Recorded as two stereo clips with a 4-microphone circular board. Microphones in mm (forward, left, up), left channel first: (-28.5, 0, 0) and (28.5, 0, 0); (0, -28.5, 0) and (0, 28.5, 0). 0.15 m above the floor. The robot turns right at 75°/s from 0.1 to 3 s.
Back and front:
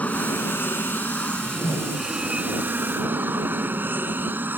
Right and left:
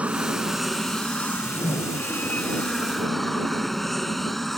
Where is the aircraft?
135° left; by 4.6 s 5° right.